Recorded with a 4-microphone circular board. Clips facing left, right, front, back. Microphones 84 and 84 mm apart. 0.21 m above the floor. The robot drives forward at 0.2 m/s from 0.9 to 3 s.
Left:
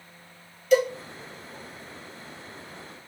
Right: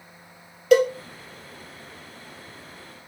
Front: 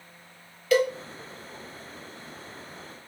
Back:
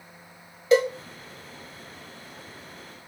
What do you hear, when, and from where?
0.7 s a cowbell: 115° right, 0.8 m